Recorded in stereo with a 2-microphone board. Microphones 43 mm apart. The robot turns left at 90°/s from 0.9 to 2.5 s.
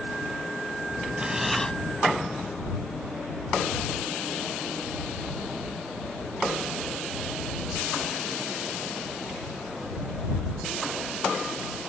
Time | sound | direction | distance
1.2 | breathing | 150° right | ?